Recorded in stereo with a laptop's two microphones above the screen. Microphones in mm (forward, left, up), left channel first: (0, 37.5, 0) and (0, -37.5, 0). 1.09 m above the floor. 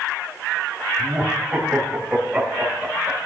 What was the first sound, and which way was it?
Laughter, 10° right (ahead or behind).